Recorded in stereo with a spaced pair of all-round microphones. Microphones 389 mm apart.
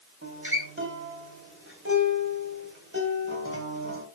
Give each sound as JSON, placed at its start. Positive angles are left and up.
{"t": 0.2, "sound": "a guitar", "side_deg": -30, "distance_m": 3.5}